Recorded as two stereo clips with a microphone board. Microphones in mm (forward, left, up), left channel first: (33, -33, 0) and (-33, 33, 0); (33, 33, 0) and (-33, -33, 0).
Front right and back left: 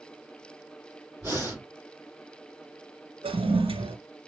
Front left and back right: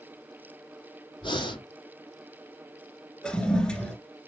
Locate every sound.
1.2 s breathing: 70° left, 4.5 m
3.2 s a toilet flushing: 125° left, 2.0 m